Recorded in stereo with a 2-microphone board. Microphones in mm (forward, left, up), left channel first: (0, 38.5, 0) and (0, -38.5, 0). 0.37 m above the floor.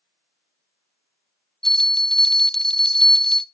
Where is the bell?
5° left (ahead or behind), 0.5 m.